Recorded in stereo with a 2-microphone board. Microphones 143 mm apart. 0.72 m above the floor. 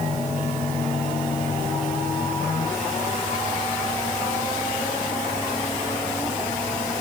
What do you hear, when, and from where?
Only background noise.